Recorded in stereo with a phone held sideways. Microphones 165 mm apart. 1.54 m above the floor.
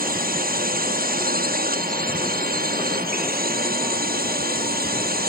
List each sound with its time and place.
0.0 s a drone: 65° right (ahead or behind); by 5.3 s 70° right (ahead or behind)